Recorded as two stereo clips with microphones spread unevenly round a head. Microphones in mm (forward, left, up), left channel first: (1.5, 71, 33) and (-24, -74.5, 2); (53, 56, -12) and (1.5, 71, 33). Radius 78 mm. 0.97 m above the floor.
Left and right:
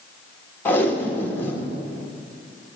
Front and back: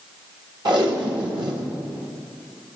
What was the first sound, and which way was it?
Tape being pulled, 160° left.